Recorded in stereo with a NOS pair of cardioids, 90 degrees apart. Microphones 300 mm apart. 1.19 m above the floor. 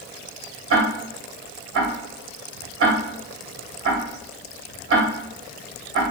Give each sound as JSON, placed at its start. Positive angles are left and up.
{"t": 0.7, "sound": "ticking", "azimuth_deg": -45, "distance_m": 2.0}